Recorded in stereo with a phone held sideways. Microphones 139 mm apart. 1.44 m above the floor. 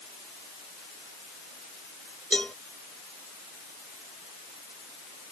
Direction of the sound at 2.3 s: 10° left (ahead or behind).